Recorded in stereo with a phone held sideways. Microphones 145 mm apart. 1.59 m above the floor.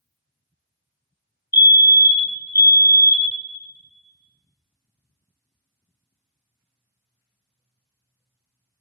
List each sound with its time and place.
1.5 s a fire alarm: 25° left (ahead or behind), 0.6 m